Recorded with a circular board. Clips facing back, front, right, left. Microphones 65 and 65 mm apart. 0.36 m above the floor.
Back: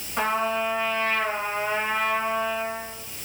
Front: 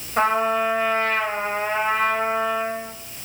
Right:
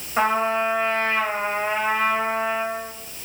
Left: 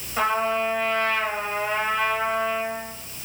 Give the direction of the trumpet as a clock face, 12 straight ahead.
1 o'clock.